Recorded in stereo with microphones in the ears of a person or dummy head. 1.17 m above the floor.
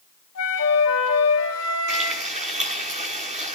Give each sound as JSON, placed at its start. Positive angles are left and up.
{"t": 0.3, "sound": "a flute", "side_deg": 75, "distance_m": 3.0}
{"t": 1.9, "sound": "frying", "side_deg": -30, "distance_m": 7.5}